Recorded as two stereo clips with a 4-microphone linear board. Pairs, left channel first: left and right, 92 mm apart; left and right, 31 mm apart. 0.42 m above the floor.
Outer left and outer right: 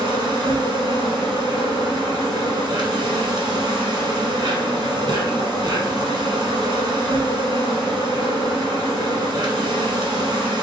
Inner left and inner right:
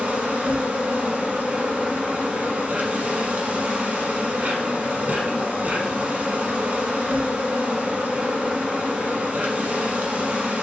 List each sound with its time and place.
0.0 s an insect: 55° right (ahead or behind), 1.2 m